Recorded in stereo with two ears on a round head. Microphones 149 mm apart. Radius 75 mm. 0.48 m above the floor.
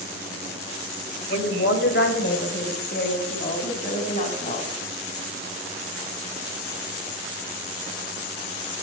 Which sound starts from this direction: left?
A woman speaking, at 1.3 s.